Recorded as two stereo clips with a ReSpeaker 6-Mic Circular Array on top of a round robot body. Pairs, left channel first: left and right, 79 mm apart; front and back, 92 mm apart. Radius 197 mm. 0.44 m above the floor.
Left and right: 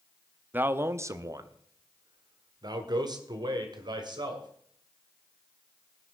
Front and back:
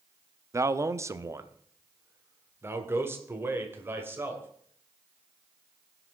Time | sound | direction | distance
0.5 | a man speaking | 145° right | 0.8 m